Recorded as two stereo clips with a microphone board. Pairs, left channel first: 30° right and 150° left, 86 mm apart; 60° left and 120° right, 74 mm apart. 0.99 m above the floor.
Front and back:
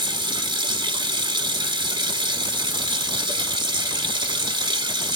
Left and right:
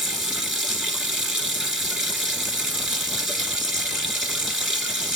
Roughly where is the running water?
Behind left.